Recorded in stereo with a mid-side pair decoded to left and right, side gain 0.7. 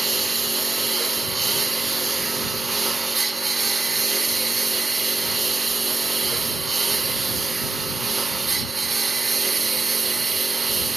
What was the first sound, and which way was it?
A lawn mower, 15° right.